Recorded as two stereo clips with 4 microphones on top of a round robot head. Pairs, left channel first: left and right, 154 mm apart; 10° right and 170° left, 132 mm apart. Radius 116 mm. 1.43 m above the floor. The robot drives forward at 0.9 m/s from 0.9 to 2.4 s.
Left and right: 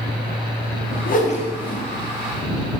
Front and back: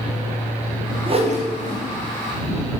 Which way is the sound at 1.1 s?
120° left.